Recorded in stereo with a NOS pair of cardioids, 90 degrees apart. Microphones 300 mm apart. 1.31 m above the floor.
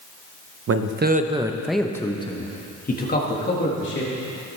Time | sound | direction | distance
0.7 | a man speaking | 50° right | 1.0 m